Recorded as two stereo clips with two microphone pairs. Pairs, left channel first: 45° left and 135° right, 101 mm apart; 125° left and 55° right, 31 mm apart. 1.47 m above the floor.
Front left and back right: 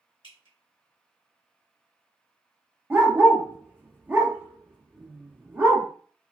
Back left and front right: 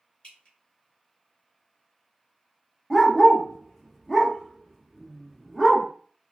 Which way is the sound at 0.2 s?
70° left.